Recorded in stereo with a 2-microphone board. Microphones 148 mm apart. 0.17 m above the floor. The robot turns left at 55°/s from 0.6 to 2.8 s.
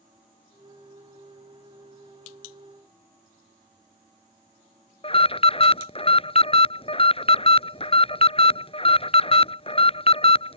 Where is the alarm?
40° left (ahead or behind).